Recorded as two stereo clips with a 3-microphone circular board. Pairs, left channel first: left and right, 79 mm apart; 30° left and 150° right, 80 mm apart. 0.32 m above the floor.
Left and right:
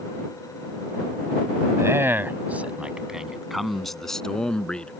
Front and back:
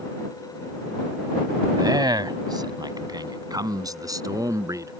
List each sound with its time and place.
1.8 s a man speaking: 140° right; by 4.9 s 170° left